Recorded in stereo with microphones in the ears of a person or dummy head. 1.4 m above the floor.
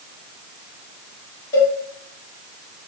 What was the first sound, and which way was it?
A cowbell, 20° left (ahead or behind).